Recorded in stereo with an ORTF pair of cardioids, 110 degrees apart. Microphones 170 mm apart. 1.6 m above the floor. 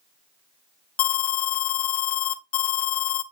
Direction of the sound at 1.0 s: 65° left.